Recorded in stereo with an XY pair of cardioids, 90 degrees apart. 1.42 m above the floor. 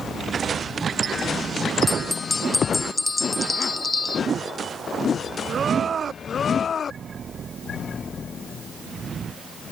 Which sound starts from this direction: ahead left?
A bell, at 1.9 s.